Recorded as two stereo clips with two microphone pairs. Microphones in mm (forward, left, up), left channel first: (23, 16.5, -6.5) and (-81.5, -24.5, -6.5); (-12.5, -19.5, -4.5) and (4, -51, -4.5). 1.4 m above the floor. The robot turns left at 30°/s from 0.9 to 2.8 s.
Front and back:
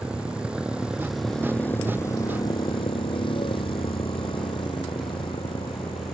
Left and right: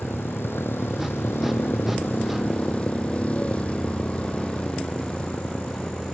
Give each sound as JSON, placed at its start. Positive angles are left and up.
{"t": 0.0, "sound": "a motorcycle", "azimuth_deg": 120}